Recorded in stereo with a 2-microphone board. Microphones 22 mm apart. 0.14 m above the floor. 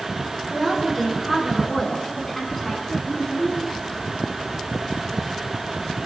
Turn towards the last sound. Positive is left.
turn(degrees=25)  # may be behind; listen again after turning